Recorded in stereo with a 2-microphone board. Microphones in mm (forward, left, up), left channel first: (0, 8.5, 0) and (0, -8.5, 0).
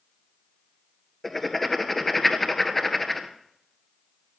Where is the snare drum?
I don't hear a snare drum.